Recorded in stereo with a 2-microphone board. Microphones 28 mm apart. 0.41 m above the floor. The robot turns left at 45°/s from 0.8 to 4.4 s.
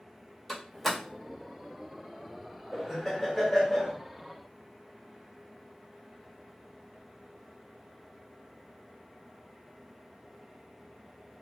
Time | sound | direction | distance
0.5 | a door slam | 5° left (ahead or behind) | 1.0 m
2.7 | laughter | 165° right | 0.9 m